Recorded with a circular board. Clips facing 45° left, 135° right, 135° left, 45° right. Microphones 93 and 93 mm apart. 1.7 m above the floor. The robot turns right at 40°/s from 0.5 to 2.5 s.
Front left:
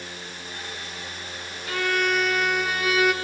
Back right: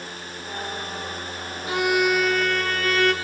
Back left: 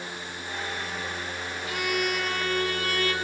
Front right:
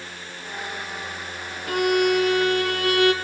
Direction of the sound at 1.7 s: 70° right.